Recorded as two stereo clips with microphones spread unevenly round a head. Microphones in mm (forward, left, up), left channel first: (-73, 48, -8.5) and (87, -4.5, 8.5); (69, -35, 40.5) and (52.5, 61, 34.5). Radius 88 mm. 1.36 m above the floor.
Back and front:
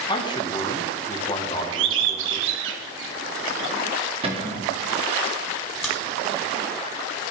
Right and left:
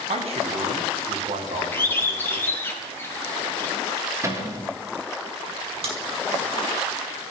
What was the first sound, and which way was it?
A man speaking, 100° left.